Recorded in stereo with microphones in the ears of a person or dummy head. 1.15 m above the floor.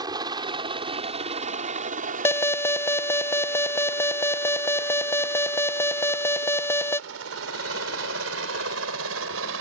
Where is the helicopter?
25° right (ahead or behind); by 9.6 s 70° right (ahead or behind).